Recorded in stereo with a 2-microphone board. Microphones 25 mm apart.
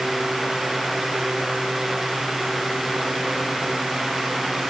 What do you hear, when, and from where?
Only background noise.